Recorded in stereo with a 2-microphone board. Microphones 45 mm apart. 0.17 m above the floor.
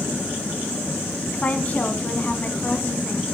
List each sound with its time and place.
1.3 s a woman speaking: 30° left (ahead or behind), 1.2 m